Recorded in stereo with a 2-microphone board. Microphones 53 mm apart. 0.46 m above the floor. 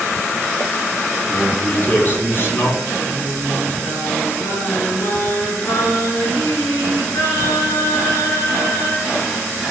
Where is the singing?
80° left, 4.5 m.